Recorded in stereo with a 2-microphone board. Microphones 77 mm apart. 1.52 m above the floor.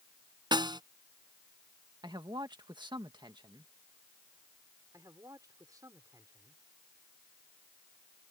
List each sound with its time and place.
0.5 s a snare drum: 75° right (ahead or behind)
2.0 s a man speaking: 75° right (ahead or behind)
4.9 s a man speaking: 50° right (ahead or behind)